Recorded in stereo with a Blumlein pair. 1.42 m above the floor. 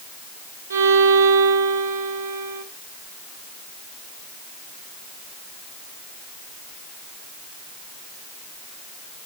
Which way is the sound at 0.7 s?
60° right.